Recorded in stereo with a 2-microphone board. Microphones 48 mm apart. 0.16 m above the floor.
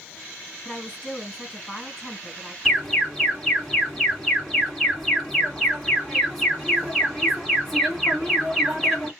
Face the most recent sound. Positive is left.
turn(degrees=0)  # may be behind; listen again after turning